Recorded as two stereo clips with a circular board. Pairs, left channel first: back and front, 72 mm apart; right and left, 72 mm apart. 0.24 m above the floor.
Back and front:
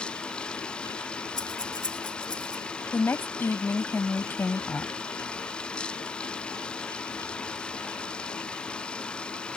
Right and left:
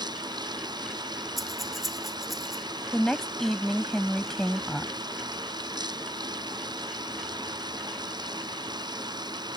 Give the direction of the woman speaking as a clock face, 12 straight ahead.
6 o'clock.